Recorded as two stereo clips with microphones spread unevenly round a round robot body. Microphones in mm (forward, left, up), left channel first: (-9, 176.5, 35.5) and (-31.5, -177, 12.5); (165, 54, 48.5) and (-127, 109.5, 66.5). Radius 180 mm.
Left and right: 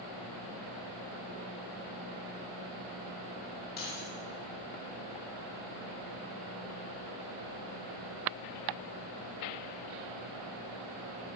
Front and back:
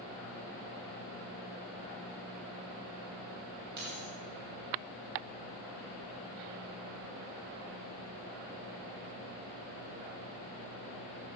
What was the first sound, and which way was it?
Keys jangling, 150° left.